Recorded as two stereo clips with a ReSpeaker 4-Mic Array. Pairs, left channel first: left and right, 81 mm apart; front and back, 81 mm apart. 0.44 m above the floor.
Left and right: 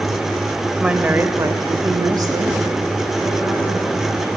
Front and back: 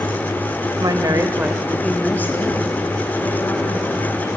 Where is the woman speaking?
170° right, 1.5 m; by 4.3 s 40° right, 4.5 m.